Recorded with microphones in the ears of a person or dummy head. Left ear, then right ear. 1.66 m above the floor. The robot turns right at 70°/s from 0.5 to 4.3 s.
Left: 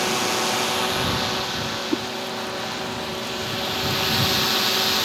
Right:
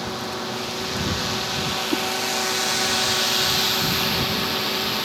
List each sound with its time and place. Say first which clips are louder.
0.0 s a drone: left 6 dB; 125° left; by 5.1 s 30° left
1.9 s a whoosh: right 1 dB; 5° left (ahead or behind); by 2.0 s 5° right (ahead or behind)